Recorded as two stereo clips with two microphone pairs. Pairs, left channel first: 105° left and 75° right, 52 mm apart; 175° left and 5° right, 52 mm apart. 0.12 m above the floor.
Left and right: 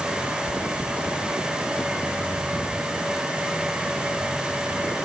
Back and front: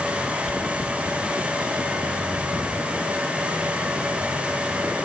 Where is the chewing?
170° left, 3.5 m.